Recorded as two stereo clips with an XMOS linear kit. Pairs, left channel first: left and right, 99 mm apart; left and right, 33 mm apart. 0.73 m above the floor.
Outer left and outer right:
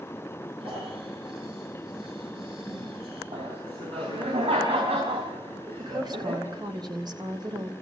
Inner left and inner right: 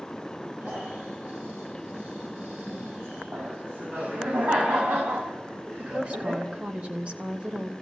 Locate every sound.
0.6 s snoring: 65° right (ahead or behind), 9.5 m
3.3 s laughter: 85° right, 4 m
5.8 s a woman speaking: 45° right (ahead or behind), 3 m